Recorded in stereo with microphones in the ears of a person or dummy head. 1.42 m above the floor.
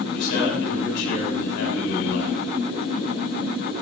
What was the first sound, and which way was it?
A man speaking, 75° left (ahead or behind).